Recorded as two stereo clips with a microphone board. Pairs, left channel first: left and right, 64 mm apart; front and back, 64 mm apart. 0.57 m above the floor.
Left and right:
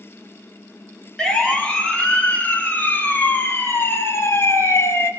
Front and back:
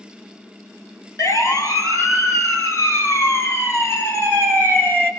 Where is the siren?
10° left, 3.5 m; by 5.1 s 55° left, 4 m.